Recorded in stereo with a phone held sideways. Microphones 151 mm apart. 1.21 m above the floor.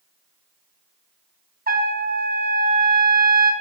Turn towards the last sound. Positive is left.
turn(degrees=-80)